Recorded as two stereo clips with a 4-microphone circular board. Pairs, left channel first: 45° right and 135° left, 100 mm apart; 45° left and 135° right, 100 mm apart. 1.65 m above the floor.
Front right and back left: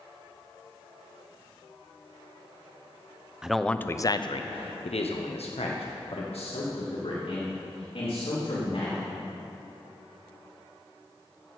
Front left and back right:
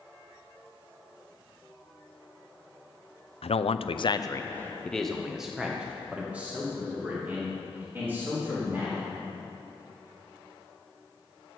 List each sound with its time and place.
3.4 s a man speaking: 50° left, 0.7 m; by 9.0 s 65° right, 4 m